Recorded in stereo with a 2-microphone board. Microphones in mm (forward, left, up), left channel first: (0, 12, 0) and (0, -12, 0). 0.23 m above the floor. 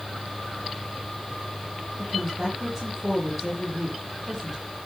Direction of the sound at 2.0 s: 5° right (ahead or behind).